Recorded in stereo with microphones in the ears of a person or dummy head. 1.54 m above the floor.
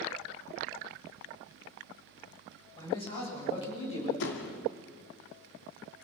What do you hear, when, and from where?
2.8 s a man speaking: 25° left (ahead or behind), 7.5 m; by 4.1 s 35° left (ahead or behind), 6.5 m
4.2 s a door slam: 70° left (ahead or behind), 2.5 m